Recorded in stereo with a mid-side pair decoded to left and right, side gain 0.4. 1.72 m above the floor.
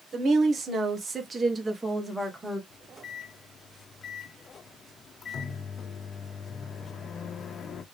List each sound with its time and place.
0.1 s a woman speaking: 50° right, 1.6 m; by 2.6 s straight ahead, 1.8 m
2.7 s a microwave: 60° left, 0.9 m